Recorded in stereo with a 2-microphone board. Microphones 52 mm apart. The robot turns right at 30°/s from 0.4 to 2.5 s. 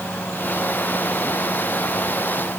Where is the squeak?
I don't hear a squeak.